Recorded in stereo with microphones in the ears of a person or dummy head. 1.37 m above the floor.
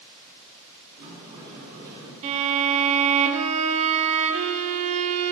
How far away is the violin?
About 0.8 m.